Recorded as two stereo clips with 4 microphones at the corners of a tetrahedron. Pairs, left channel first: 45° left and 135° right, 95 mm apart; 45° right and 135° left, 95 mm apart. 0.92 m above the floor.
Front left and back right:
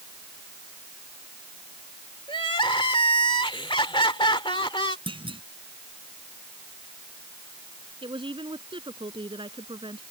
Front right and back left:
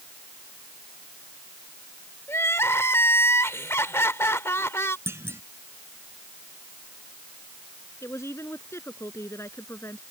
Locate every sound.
2.3 s crying: 15° left
5.1 s a clunk: 160° right
8.0 s a woman speaking: 105° right